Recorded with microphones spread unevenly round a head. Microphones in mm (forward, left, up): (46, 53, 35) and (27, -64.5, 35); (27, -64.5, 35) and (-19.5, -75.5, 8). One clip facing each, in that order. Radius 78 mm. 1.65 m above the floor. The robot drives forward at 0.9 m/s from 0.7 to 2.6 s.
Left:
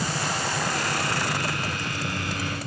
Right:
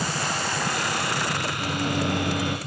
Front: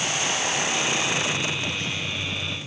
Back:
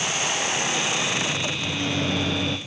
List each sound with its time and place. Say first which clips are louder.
1.6 s a microwave: right 5 dB, back 3 dB; 55° right, 0.6 m; by 2.6 s 155° right, 0.9 m